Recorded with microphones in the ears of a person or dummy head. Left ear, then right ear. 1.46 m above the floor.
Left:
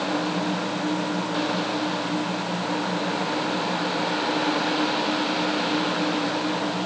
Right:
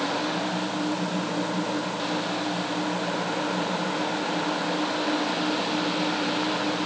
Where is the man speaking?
No man speaking in this recording.